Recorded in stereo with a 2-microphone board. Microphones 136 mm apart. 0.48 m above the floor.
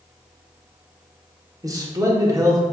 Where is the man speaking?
25° right (ahead or behind), 0.8 m.